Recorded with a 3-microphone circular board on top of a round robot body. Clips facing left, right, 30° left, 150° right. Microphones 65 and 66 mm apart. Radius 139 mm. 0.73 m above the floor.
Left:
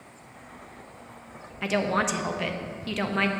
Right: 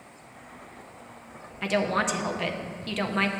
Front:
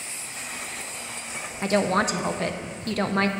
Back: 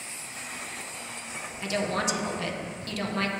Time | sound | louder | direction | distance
1.6 | a woman speaking | even, front 6 dB | straight ahead | 0.6 m